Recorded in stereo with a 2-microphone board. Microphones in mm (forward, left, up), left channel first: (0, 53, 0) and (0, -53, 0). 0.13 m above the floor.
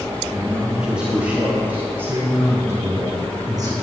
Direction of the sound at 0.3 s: 5° right (ahead or behind).